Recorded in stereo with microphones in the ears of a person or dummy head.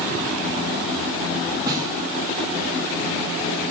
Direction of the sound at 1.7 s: 25° right (ahead or behind).